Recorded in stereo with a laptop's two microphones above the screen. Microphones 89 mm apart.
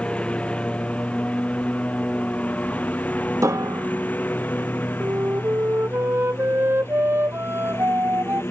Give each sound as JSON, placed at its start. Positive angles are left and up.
{"t": 0.0, "sound": "a lawn mower", "side_deg": 15}
{"t": 3.4, "sound": "a piano", "side_deg": -35}
{"t": 5.0, "sound": "a flute", "side_deg": -25}